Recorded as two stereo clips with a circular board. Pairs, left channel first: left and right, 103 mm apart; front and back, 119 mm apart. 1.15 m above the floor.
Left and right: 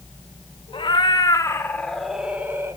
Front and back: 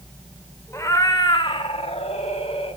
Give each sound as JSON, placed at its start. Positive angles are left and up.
{"t": 0.7, "sound": "a cat meowing", "azimuth_deg": 65, "distance_m": 1.5}